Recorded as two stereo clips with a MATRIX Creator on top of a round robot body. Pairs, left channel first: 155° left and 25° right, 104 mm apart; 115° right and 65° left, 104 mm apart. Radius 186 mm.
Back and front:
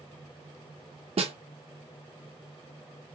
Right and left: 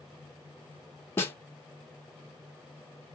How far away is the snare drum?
About 0.6 m.